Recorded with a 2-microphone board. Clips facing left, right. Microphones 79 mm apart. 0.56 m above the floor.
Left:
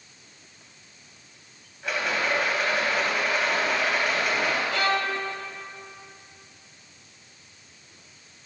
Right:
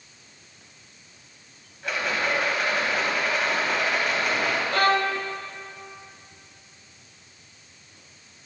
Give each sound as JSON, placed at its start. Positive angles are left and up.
{"t": 1.8, "sound": "a rattle", "side_deg": 0, "distance_m": 2.5}
{"t": 4.7, "sound": "a violin", "side_deg": -45, "distance_m": 0.6}